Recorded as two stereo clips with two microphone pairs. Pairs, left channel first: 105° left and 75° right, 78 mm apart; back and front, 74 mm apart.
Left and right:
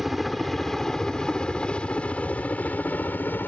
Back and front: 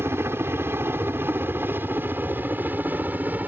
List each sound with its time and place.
0.0 s a helicopter: 15° left; by 3.5 s 55° left